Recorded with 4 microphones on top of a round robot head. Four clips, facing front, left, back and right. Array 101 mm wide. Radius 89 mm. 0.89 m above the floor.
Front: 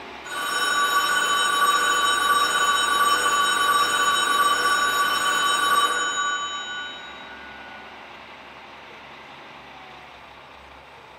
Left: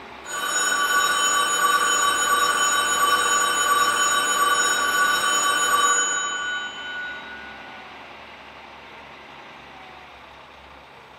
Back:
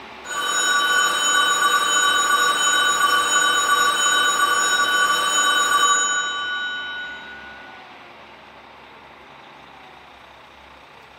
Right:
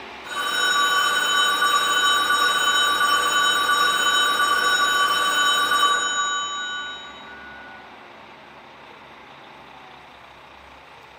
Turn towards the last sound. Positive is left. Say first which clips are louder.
# right 2 dB, back 2 dB
turn(degrees=-165)